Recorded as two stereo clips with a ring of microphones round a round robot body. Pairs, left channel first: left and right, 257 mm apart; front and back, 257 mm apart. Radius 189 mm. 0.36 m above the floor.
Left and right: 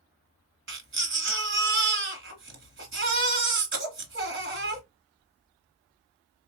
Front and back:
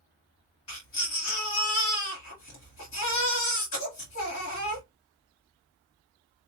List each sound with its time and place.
0.7 s a baby crying: 50° right, 1.7 m